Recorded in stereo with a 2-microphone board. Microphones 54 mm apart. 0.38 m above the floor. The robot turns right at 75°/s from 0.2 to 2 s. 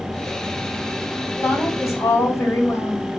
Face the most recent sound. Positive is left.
turn(degrees=80)